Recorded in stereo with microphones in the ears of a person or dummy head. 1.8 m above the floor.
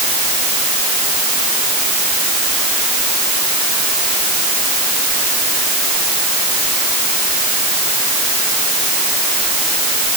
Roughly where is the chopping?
No chopping in this recording.